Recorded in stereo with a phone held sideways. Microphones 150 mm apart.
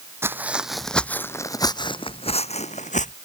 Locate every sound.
0.2 s footsteps: 15° right (ahead or behind); by 3.1 s 50° left (ahead or behind)